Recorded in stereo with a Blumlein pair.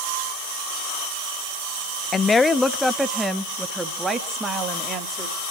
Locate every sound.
2.1 s a woman speaking: 20° left, 0.6 m; by 5.4 s 15° right, 2.5 m